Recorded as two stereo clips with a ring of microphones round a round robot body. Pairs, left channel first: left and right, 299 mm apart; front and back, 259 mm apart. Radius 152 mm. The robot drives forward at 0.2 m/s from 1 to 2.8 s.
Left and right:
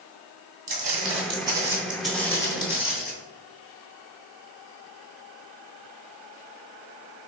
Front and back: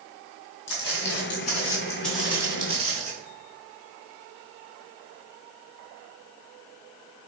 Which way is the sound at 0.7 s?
35° right.